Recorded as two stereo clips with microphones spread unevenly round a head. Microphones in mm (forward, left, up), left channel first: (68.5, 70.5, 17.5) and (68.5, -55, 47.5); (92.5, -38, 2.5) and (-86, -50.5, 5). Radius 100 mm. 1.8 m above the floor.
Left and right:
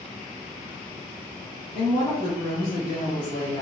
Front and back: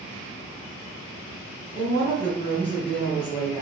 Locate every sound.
1.7 s a woman speaking: 70° left, 1.3 m; by 3.6 s 75° left, 2 m